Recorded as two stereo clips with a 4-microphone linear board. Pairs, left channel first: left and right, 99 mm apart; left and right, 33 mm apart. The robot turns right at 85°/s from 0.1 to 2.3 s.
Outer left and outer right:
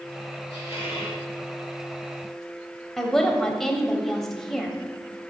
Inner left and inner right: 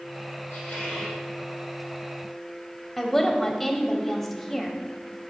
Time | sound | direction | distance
0.5 | a squeak | 75° left | 3.5 m
3.0 | a woman speaking | 5° left (ahead or behind) | 0.9 m